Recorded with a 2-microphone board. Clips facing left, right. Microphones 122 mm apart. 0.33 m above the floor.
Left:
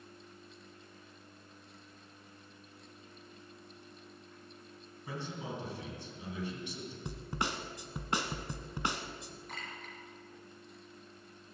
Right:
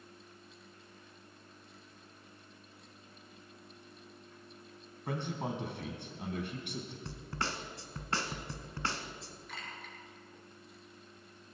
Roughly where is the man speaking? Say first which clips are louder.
Right 4 dB; right.